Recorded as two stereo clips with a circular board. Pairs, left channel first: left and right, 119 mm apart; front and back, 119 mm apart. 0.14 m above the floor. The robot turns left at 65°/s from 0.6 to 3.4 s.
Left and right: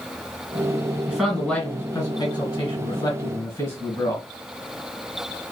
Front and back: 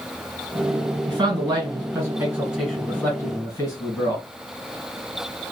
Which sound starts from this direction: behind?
A man speaking, at 1.1 s.